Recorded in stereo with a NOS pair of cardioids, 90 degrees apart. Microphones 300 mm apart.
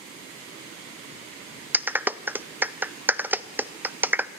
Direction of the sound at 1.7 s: 5° right.